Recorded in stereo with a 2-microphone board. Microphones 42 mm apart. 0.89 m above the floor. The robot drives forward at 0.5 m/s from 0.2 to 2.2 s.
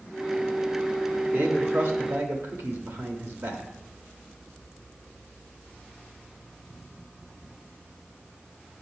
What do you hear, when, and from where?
1.3 s a man speaking: 55° right (ahead or behind), 1.5 m; by 3.6 s 70° right (ahead or behind), 1.3 m